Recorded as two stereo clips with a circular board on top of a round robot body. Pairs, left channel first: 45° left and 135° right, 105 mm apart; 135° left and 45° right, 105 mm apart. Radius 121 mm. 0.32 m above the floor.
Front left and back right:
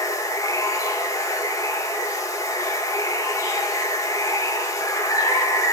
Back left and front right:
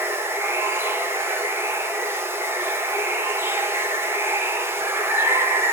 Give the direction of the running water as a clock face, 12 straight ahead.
12 o'clock.